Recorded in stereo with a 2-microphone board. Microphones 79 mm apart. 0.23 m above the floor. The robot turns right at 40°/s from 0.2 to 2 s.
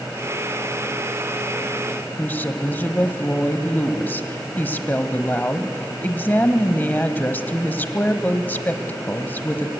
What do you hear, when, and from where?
2.2 s a woman speaking: 25° left (ahead or behind), 1.0 m